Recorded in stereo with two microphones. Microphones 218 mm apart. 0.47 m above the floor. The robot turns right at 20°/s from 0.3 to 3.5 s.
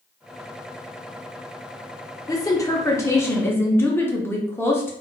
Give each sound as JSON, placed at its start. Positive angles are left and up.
{"t": 2.3, "sound": "a woman speaking", "side_deg": 15, "distance_m": 0.7}